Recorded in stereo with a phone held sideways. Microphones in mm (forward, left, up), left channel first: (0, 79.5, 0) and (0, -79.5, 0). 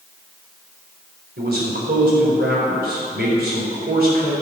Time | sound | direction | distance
1.4 | a man speaking | 80° right | 4.5 m